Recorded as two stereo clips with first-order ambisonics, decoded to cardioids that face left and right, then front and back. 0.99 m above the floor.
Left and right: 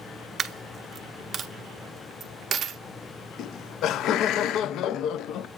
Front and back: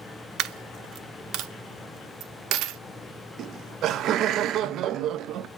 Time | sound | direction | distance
0.4 | a dropped coin | 150° right | 0.6 m
3.4 | laughter | 135° left | 0.5 m